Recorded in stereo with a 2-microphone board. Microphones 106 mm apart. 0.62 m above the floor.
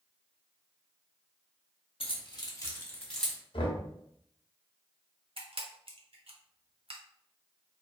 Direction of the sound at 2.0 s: 60° left (ahead or behind).